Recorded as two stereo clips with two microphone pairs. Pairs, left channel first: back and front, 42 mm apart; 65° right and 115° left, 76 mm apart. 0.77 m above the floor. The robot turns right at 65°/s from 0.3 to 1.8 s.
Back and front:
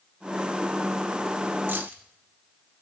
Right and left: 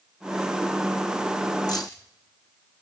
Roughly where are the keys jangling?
Ahead right.